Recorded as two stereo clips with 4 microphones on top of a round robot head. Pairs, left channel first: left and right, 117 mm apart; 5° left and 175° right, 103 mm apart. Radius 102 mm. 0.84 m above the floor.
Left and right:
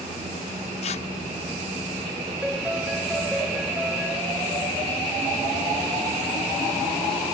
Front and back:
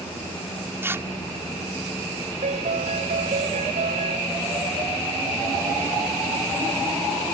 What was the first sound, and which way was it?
Tearing paper, 120° left.